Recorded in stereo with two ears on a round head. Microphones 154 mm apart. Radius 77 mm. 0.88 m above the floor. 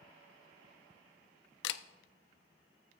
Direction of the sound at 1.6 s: 70° left (ahead or behind).